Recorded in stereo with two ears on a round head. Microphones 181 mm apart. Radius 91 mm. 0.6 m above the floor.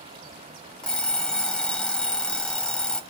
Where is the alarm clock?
5° left (ahead or behind), 1.2 m.